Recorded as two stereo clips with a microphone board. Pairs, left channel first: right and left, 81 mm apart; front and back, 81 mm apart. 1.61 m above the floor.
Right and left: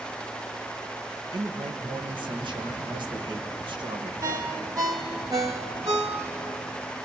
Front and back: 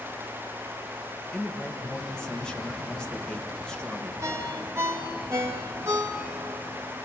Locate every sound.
1.3 s a man speaking: 80° left, 1.5 m
4.2 s a ringtone: 125° left, 1.9 m